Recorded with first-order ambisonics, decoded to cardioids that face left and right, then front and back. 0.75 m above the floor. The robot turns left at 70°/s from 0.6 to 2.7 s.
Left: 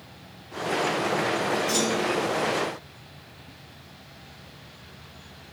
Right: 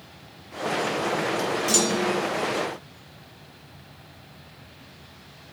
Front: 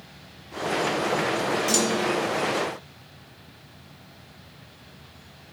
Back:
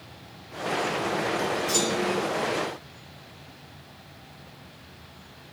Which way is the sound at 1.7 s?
40° right.